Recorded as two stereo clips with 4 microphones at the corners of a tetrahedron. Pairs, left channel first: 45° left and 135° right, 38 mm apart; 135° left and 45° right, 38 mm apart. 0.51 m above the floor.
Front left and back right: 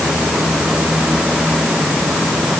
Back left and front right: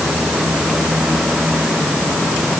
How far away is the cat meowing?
No cat meowing in this recording.